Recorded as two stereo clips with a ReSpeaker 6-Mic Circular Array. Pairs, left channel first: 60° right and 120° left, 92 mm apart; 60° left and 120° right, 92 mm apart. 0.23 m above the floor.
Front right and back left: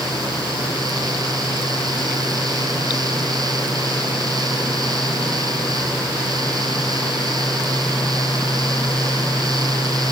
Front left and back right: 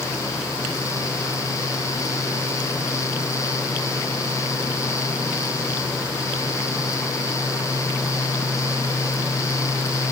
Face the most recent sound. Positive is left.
No sound to turn to.